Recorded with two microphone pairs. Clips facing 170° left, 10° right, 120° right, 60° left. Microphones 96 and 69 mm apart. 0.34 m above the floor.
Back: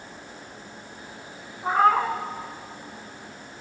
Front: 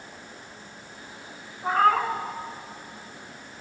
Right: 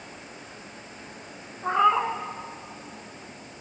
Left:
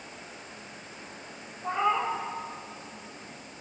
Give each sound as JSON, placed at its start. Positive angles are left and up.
{"t": 1.6, "sound": "a cat meowing", "azimuth_deg": -110, "distance_m": 0.8}